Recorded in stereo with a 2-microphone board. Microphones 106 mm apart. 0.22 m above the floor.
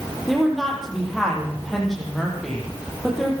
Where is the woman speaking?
Centre (ahead or behind), 9.5 m.